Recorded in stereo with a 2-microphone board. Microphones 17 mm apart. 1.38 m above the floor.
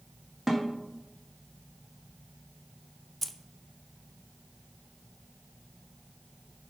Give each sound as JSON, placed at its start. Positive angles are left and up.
{"t": 0.5, "sound": "a snare drum", "side_deg": 10, "distance_m": 2.0}
{"t": 3.2, "sound": "keys jangling", "side_deg": 15, "distance_m": 0.6}